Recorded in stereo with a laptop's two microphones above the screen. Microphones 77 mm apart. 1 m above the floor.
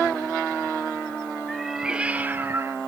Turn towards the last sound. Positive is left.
turn(degrees=-40)  # may be behind; listen again after turning